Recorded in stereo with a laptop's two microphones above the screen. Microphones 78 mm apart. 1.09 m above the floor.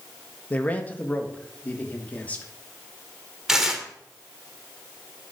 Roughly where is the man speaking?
Left.